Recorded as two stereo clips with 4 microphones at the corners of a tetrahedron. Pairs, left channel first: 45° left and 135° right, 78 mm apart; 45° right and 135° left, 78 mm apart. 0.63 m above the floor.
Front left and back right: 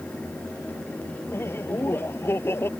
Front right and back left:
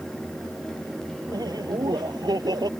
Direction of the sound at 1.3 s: 105° left.